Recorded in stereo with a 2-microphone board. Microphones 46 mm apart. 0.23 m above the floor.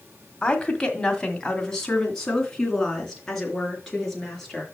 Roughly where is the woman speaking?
Centre.